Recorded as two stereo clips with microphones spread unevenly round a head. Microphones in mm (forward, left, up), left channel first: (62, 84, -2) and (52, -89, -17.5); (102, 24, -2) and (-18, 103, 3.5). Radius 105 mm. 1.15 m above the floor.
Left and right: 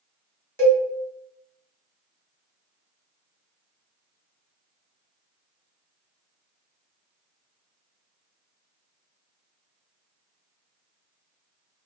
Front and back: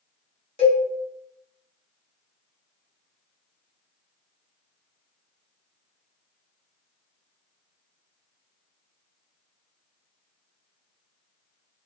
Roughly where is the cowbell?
Ahead.